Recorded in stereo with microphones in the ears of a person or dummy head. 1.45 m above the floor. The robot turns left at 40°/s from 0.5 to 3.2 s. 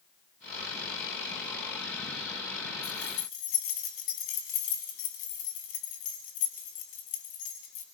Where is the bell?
No bell in this recording.